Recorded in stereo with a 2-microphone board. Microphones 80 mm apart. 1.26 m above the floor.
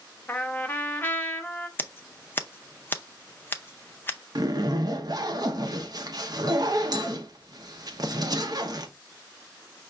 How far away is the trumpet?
About 0.5 m.